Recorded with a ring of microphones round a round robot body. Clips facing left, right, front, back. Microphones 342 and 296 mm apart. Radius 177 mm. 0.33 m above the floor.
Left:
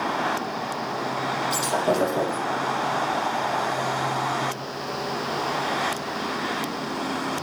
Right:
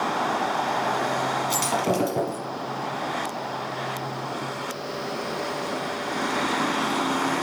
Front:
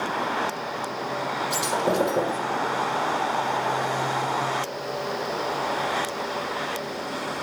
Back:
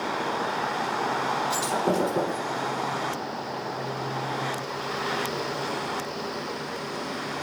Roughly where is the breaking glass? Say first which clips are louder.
Left 2 dB, front 1 dB; right.